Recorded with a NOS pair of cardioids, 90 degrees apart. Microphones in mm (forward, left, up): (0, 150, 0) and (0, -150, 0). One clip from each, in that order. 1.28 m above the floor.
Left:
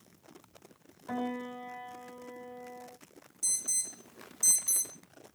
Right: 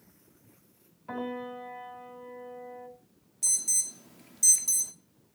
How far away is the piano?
About 6 m.